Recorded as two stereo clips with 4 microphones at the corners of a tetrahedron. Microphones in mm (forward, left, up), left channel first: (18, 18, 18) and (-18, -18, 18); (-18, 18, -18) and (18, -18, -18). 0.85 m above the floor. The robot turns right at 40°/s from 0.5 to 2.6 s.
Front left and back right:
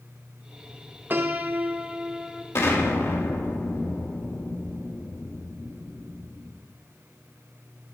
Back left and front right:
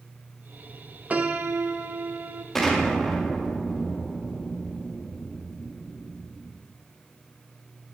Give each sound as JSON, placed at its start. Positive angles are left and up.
{"t": 1.1, "sound": "a piano", "azimuth_deg": -100, "distance_m": 0.6}
{"t": 2.5, "sound": "an explosion", "azimuth_deg": 50, "distance_m": 1.3}